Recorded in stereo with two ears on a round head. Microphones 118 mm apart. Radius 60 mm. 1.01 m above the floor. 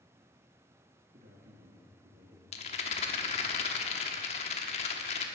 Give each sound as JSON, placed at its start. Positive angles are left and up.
{"t": 1.1, "sound": "a man speaking", "side_deg": -60, "distance_m": 1.7}
{"t": 2.5, "sound": "a rattle", "side_deg": 45, "distance_m": 1.1}